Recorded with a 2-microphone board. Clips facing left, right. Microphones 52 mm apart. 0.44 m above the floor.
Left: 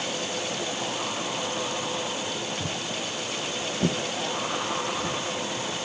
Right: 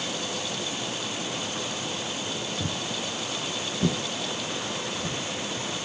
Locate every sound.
2.6 s footsteps: 45° right (ahead or behind), 0.6 m; by 5.9 s 50° left (ahead or behind), 1.7 m